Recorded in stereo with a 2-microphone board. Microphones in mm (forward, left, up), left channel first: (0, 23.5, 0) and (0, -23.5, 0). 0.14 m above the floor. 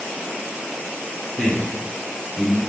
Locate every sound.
1.4 s a man speaking: 25° left (ahead or behind), 1.3 m; by 2.6 s 30° left (ahead or behind), 2 m